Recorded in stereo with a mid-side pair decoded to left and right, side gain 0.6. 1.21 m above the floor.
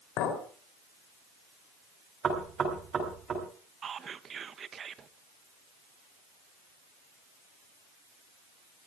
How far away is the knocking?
About 7 m.